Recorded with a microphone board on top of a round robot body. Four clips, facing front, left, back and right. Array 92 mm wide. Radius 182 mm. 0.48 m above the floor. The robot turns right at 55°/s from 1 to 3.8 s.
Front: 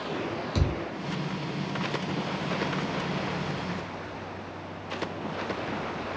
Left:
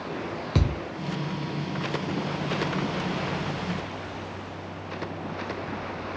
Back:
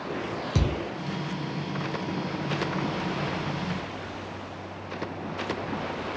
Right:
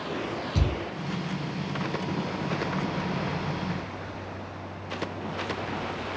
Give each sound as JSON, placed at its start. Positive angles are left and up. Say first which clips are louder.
{"t": 0.6, "sound": "a thud", "louder": "left 4 dB, back 3 dB", "azimuth_deg": 110, "distance_m": 0.9}